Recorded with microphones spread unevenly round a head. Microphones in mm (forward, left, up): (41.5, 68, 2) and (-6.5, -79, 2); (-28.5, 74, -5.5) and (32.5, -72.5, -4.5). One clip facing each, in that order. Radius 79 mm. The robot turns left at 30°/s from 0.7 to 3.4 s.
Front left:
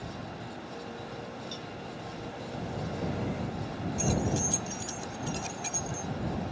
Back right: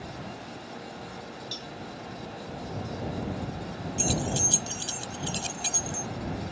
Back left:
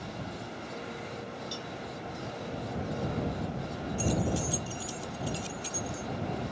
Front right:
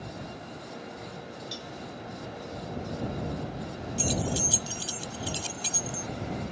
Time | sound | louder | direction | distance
1.5 | a cowbell | even, back left 1 dB | 145° right | ?
4.0 | keys jangling | even, even | 60° right | ?